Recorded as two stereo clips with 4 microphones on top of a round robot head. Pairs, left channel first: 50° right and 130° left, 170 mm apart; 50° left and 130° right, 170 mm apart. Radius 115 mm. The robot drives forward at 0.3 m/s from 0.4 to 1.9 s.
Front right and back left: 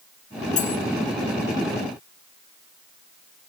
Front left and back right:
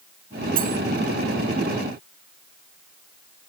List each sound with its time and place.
0.6 s cutlery clinking: 95° right, 3.5 m